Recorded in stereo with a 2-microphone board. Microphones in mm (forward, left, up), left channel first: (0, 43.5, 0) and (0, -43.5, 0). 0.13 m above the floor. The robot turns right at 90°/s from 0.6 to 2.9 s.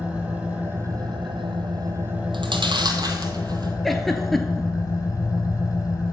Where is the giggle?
5° left (ahead or behind), 0.7 m.